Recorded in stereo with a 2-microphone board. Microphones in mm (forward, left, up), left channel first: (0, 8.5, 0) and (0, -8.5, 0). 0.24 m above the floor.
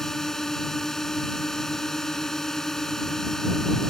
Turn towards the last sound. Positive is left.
turn(degrees=25)  # may be behind; listen again after turning